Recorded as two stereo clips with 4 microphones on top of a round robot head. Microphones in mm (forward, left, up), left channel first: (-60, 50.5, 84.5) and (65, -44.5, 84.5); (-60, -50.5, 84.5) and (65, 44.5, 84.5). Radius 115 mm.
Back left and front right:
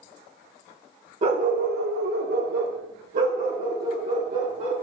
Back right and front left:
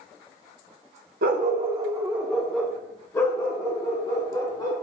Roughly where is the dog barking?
Ahead.